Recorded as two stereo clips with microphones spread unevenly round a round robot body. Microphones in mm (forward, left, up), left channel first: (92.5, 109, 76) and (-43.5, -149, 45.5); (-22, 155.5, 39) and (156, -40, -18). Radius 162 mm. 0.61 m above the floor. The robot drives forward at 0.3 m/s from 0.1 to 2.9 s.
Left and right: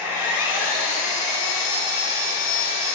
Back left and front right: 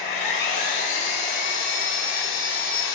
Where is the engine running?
160° left, 3 m; by 3.0 s 165° left, 4 m.